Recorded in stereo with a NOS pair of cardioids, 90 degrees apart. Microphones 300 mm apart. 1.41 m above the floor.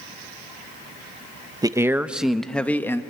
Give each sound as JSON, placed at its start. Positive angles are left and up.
{"t": 1.6, "sound": "a man speaking", "azimuth_deg": -15, "distance_m": 1.0}